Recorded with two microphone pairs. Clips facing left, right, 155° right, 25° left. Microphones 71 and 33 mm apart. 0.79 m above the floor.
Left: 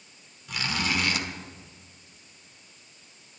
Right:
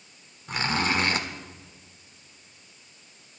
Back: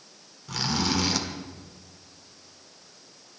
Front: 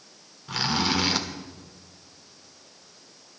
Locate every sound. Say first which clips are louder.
0.5 s a zipper: right 3 dB, front 2 dB; 35° right, 1.1 m